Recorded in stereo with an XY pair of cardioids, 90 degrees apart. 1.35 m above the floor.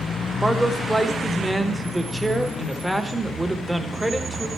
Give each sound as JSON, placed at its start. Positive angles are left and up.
{"t": 0.4, "sound": "a man speaking", "azimuth_deg": -10, "distance_m": 1.0}